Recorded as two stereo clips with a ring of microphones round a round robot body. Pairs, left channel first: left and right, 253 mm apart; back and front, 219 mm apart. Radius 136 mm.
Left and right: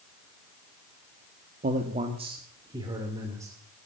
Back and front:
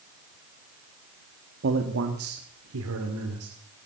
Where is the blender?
No blender in this recording.